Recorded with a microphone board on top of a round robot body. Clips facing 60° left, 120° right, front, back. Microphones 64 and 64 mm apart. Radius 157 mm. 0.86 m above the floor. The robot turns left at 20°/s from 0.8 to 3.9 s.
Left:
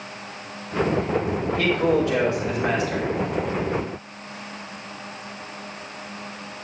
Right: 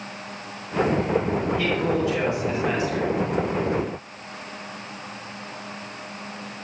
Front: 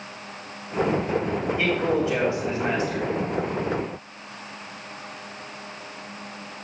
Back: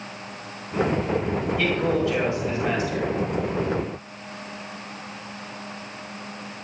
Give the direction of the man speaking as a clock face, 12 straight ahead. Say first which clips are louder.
Left 7 dB, even; 10 o'clock.